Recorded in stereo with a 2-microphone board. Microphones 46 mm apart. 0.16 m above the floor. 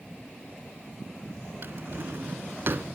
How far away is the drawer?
About 0.6 m.